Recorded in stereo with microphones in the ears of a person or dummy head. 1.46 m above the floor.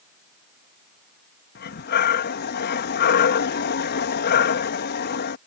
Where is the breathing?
55° left (ahead or behind).